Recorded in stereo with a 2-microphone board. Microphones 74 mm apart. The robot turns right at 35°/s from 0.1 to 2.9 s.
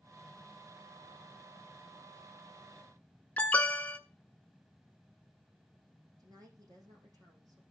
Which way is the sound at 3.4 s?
20° left (ahead or behind).